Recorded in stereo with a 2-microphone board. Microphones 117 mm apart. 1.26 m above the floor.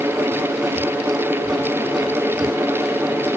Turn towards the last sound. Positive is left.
No sound to turn to.